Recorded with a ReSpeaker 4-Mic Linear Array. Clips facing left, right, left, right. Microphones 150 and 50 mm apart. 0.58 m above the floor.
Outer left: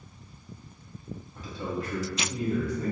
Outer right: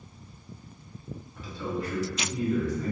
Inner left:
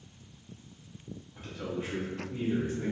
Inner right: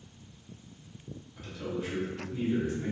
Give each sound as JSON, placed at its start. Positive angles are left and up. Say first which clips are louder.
{"t": 1.4, "sound": "a man speaking", "louder": "outer right 1 dB, inner right 1 dB", "side_deg": 15, "distance_m": 1.0}